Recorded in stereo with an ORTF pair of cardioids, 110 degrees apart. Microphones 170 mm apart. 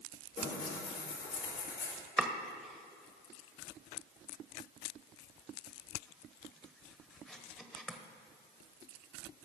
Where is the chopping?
5° left, 1.3 m.